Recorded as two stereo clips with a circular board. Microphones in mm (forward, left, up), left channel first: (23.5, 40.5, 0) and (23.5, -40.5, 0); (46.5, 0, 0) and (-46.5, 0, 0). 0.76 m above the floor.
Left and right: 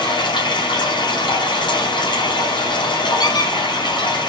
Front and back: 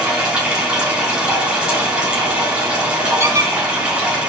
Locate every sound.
0.0 s running water: 100° left, 5.5 m
3.2 s a squeak: 120° left, 2.5 m